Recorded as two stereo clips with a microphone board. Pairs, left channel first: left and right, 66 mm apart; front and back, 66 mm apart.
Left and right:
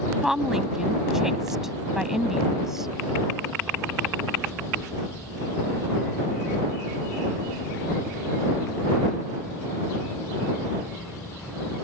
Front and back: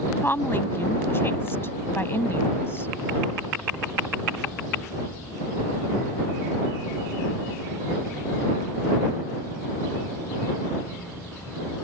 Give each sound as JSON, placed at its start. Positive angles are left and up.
{"t": 0.2, "sound": "a woman speaking", "azimuth_deg": -10}